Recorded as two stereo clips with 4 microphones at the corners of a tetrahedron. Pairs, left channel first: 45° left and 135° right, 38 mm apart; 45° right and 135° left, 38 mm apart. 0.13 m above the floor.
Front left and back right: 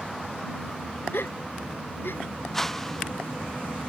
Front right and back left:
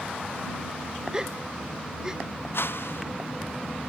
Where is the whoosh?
35° right.